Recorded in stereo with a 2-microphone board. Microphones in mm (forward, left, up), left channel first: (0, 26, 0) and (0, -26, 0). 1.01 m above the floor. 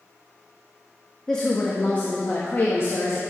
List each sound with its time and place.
1.3 s a woman speaking: 10° left (ahead or behind), 1.2 m; by 3.2 s 55° left (ahead or behind), 1.5 m